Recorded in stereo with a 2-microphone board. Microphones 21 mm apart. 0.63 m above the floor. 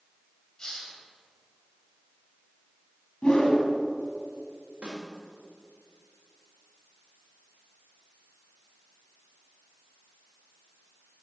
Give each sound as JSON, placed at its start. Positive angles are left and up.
{"t": 0.6, "sound": "a hiss", "side_deg": 35, "distance_m": 1.9}
{"t": 3.2, "sound": "a whoosh", "side_deg": 50, "distance_m": 1.4}
{"t": 4.8, "sound": "a snare drum", "side_deg": -70, "distance_m": 2.0}